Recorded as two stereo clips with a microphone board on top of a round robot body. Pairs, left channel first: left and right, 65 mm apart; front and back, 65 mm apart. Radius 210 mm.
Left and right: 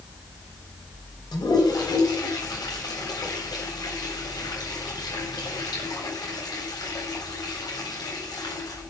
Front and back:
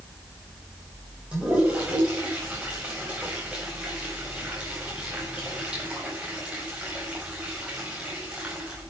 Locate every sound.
1.3 s a toilet flushing: 105° left, 8.5 m